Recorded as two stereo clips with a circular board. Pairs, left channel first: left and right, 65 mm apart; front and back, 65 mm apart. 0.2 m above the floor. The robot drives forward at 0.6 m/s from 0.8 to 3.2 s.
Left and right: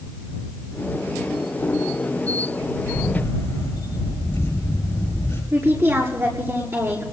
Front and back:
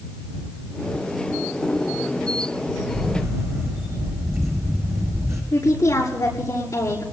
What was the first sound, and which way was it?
A camera shutter, 140° left.